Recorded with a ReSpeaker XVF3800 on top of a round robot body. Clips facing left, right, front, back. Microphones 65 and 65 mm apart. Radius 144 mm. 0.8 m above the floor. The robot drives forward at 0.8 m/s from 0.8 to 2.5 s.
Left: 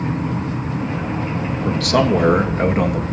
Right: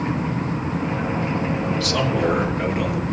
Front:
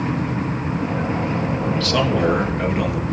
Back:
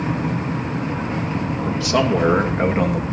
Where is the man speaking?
105° left, 1.3 m; by 3.0 s 130° left, 1.6 m.